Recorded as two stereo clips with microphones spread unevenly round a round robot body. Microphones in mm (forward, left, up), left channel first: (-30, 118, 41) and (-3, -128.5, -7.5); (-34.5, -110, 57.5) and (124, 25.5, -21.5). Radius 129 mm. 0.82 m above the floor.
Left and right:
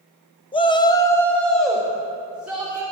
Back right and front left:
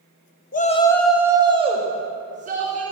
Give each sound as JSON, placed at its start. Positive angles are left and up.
{"t": 0.5, "sound": "a shout", "azimuth_deg": 170, "distance_m": 1.0}